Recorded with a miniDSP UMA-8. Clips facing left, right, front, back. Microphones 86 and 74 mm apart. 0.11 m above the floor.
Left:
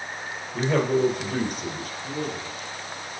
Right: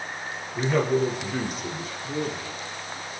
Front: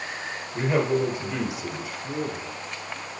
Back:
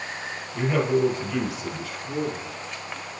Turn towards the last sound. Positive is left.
turn(degrees=-30)